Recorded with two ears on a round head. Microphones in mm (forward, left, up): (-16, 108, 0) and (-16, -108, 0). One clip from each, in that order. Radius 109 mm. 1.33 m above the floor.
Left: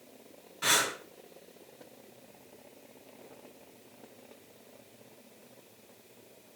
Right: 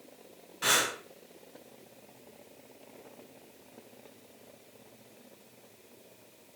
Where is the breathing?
10° right (ahead or behind), 7.5 m.